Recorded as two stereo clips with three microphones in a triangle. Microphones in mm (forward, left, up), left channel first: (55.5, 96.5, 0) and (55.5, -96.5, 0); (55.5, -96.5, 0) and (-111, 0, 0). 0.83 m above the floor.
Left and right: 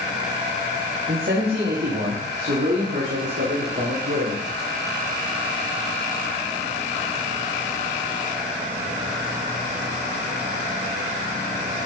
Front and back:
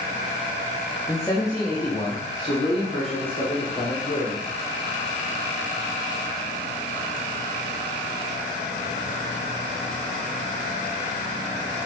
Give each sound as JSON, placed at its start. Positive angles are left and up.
{"t": 1.1, "sound": "a man speaking", "azimuth_deg": -105, "distance_m": 1.7}